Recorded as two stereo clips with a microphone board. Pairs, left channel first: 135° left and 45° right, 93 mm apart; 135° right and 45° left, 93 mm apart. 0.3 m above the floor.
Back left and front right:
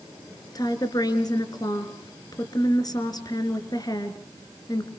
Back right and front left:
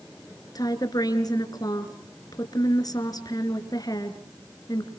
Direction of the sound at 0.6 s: Straight behind.